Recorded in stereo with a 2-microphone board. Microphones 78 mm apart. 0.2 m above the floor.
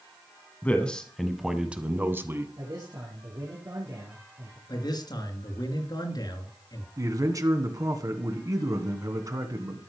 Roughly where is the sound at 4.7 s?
Left.